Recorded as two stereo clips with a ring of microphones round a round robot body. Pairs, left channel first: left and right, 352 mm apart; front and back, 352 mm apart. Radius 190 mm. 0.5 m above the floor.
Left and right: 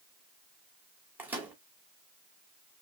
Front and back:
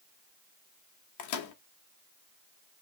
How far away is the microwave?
About 1.1 m.